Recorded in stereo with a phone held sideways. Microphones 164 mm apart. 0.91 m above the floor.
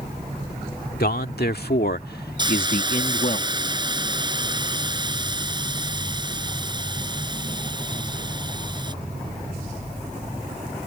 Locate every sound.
1.0 s a man speaking: 75° left (ahead or behind); by 3.4 s 50° left (ahead or behind)
2.4 s a hiss: 30° right (ahead or behind)